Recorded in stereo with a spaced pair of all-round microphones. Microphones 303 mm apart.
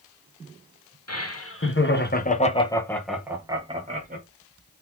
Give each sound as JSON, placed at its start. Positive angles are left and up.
{"t": 1.1, "sound": "laughter", "side_deg": 55, "distance_m": 1.5}